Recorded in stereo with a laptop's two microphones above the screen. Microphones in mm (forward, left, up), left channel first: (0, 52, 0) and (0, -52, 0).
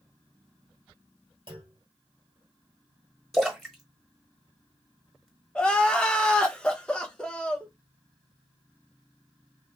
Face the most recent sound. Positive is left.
turn(degrees=10)  # may be behind; listen again after turning